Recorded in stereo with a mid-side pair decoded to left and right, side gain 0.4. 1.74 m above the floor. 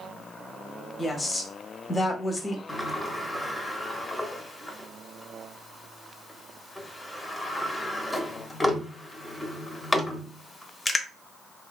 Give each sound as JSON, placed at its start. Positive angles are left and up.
{"t": 1.0, "sound": "a woman speaking", "azimuth_deg": 35, "distance_m": 1.0}
{"t": 2.7, "sound": "a sliding door", "azimuth_deg": 25, "distance_m": 0.7}